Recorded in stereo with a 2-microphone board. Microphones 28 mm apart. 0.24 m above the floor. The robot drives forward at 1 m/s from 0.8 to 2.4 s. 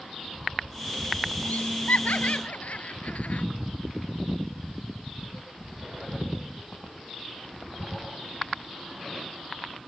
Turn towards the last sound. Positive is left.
turn(degrees=60)  # may be behind; listen again after turning